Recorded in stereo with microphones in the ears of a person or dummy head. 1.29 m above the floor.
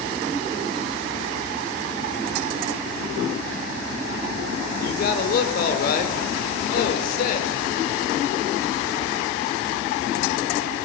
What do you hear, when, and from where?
4.8 s a man speaking: 55° left (ahead or behind), 5 m